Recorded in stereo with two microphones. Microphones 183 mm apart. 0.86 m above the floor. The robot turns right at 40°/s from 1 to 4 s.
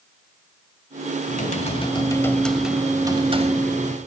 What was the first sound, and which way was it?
Typing on a keyboard, 130° left.